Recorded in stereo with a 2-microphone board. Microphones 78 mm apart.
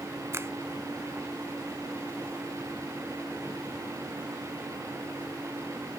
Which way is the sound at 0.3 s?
35° right (ahead or behind).